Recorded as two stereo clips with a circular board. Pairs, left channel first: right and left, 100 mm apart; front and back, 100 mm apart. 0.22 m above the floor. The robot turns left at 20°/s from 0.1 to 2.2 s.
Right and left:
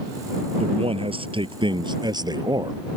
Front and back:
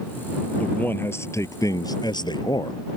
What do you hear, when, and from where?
0.6 s a man speaking: 75° left; by 2.8 s 45° left